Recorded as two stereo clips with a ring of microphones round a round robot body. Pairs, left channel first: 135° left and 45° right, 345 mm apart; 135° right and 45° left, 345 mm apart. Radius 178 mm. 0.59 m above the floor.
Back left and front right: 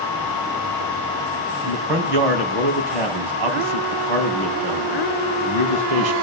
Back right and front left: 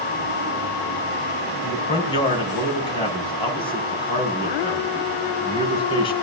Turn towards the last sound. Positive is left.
turn(degrees=-60)